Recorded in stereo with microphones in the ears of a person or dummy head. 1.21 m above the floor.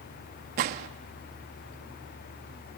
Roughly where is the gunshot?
Right.